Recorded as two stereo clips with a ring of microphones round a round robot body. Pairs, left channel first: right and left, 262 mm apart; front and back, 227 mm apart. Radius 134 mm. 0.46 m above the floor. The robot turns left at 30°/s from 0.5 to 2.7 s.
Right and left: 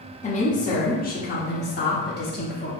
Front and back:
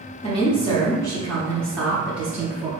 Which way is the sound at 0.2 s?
50° right.